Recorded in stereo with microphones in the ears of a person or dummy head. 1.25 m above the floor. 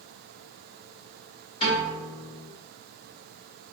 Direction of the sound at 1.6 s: 30° left (ahead or behind).